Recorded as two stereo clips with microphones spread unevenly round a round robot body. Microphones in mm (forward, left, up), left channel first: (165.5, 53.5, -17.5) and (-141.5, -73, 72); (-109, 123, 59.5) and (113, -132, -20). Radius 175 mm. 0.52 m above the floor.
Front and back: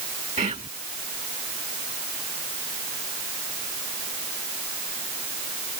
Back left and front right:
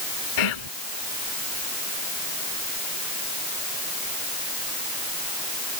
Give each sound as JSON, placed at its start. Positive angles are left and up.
{"t": 0.4, "sound": "whispering", "azimuth_deg": 130}